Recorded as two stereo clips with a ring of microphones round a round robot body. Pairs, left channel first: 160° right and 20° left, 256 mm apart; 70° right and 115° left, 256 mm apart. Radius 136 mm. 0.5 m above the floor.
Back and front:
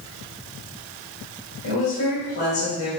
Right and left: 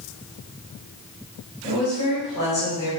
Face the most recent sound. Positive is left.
turn(degrees=-130)